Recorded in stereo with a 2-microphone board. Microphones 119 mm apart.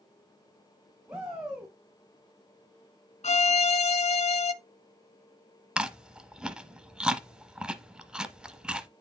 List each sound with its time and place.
1.1 s a shout: 5° right (ahead or behind), 2.0 m
3.2 s a violin: 65° left (ahead or behind), 0.5 m
5.8 s chewing: 5° right (ahead or behind), 0.8 m